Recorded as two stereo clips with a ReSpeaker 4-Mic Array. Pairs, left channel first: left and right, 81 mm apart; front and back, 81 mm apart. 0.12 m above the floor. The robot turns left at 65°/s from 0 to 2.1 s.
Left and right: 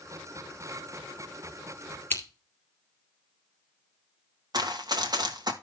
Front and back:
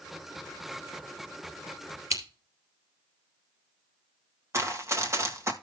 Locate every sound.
2.1 s scissors: 145° left, 2 m
4.5 s running footsteps: 125° right, 1.7 m